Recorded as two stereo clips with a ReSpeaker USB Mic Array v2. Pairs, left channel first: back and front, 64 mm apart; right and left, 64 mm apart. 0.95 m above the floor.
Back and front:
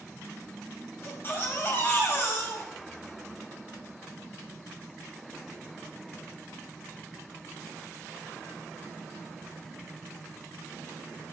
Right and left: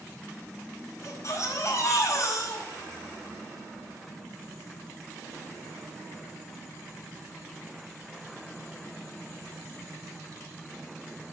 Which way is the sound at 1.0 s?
130° right.